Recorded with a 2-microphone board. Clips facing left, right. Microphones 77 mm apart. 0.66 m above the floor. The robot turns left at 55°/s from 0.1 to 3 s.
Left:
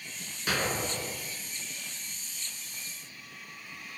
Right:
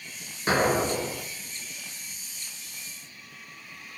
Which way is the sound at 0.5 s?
30° right.